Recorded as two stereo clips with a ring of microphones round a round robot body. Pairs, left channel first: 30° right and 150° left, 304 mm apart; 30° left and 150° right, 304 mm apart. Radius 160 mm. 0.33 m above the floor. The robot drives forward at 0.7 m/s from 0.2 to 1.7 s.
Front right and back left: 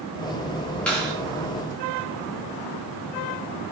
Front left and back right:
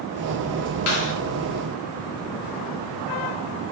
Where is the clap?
55° left, 5 m; by 1.1 s 60° left, 5 m.